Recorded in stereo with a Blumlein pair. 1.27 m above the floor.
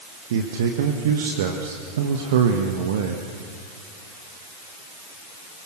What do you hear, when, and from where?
0.3 s a man speaking: 55° right, 1.7 m